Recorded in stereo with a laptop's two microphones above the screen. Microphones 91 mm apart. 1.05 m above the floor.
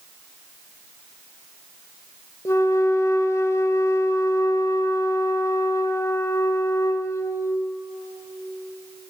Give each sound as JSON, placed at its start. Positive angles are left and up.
{"t": 2.5, "sound": "a flute", "side_deg": 35, "distance_m": 1.6}